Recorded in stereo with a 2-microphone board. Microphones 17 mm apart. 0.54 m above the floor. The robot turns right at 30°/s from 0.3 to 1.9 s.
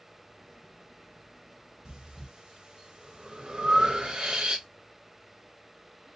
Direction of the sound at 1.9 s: 50° right (ahead or behind).